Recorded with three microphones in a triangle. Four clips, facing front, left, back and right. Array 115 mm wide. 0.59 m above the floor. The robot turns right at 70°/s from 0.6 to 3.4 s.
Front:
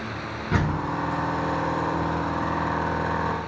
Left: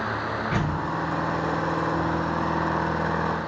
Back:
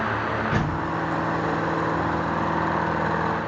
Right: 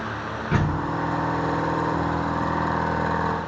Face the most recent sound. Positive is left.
turn(degrees=145)